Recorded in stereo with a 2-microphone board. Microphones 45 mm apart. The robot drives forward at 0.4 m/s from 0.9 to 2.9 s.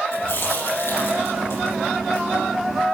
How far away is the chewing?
About 5 m.